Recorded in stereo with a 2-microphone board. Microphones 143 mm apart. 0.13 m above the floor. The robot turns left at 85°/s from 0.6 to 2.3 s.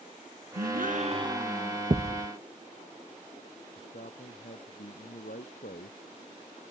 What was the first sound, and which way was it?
A gasp, 90° right.